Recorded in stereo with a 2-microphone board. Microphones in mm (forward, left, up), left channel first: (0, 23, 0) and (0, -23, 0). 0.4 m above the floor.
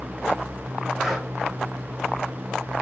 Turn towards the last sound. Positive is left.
turn(degrees=5)  # may be behind; listen again after turning